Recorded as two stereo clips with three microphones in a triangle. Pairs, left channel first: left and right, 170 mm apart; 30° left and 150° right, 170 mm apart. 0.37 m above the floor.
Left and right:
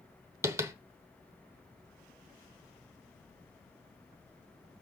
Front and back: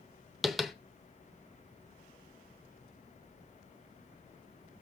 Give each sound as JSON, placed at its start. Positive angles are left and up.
{"t": 0.4, "sound": "tapping", "azimuth_deg": -60, "distance_m": 0.8}